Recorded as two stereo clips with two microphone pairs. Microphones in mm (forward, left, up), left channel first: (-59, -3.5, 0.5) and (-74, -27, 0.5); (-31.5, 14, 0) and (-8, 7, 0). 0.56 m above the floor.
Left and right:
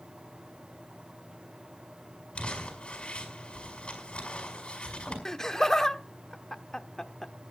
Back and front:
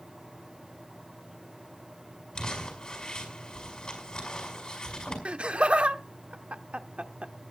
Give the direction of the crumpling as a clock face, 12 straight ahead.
8 o'clock.